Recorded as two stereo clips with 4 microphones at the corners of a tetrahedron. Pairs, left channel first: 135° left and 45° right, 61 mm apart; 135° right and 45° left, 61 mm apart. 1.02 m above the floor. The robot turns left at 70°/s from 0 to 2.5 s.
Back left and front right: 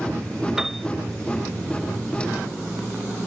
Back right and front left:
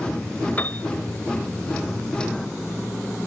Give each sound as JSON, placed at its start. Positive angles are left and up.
{"t": 0.6, "sound": "a piano", "azimuth_deg": -120}